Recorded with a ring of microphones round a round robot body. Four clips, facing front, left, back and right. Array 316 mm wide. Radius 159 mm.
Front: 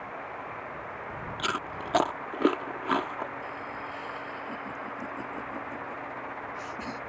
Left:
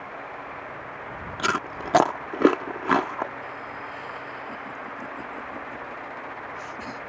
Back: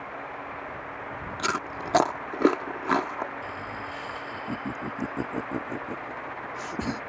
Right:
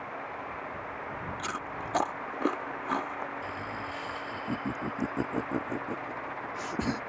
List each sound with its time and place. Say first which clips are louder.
1.4 s chewing: left 8 dB, back 3 dB; 100° left
3.4 s laughter: left 1 dB, back 2 dB; 135° right